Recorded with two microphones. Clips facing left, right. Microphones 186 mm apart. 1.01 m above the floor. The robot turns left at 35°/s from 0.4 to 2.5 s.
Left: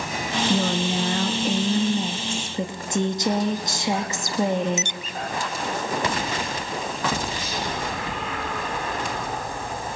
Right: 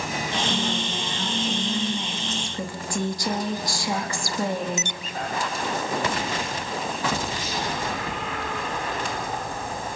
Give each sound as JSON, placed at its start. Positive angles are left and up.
{"t": 0.5, "sound": "a woman speaking", "azimuth_deg": 90, "distance_m": 1.6}